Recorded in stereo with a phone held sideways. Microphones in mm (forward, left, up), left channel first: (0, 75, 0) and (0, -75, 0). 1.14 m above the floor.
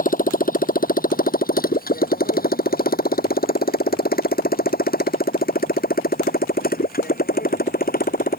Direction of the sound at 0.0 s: 65° left (ahead or behind).